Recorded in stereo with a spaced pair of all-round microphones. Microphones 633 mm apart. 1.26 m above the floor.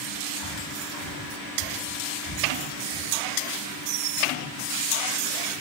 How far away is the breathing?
About 6.5 m.